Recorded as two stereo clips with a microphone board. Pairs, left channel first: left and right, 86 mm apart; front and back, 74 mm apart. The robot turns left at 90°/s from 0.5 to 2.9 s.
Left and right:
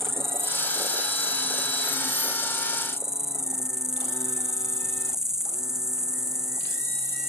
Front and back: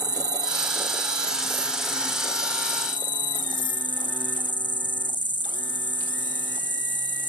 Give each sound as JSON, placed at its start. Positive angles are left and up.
{"t": 0.0, "sound": "an insect", "azimuth_deg": -150}